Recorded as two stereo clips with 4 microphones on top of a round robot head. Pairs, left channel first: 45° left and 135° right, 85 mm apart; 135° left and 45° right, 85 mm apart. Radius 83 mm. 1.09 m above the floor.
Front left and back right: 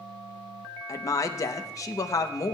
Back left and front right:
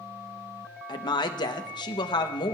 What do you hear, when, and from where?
0.9 s a woman speaking: 100° left, 0.8 m